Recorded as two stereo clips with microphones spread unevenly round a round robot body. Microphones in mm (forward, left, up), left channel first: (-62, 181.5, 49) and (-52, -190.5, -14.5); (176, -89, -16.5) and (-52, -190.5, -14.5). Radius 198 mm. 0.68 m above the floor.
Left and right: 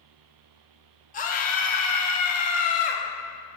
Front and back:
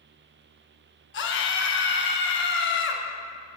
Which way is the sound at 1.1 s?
20° left.